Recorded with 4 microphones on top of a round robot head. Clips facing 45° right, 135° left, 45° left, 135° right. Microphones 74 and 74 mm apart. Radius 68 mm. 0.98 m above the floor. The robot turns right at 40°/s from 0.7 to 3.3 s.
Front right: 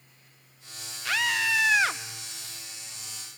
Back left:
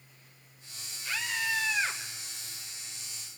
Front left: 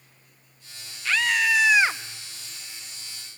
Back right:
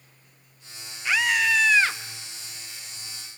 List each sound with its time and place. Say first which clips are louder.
1.1 s a scream: front right 6 dB, even; 60° right, 1.2 m; by 2.0 s 20° right, 1.2 m